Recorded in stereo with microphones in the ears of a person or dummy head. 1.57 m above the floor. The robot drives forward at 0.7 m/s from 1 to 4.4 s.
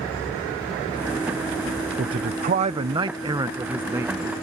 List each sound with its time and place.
2.0 s a man speaking: 35° right (ahead or behind); by 4.3 s 10° right (ahead or behind)